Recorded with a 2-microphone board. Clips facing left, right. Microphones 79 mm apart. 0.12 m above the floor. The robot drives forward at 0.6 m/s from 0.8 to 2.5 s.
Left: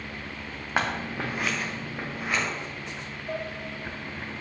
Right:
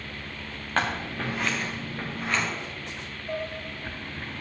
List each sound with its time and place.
0.8 s scissors: 10° left (ahead or behind), 2.5 m
3.3 s dishes clattering: 10° left (ahead or behind), 1.6 m